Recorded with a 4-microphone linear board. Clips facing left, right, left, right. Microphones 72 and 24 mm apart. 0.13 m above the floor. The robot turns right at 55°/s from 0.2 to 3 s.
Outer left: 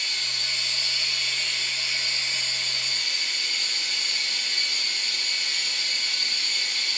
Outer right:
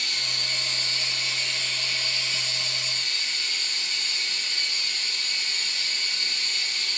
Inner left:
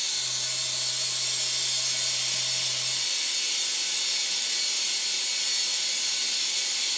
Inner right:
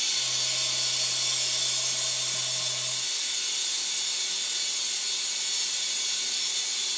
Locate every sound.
0.0 s running water: 75° right, 1.0 m; by 7.0 s 80° left, 1.0 m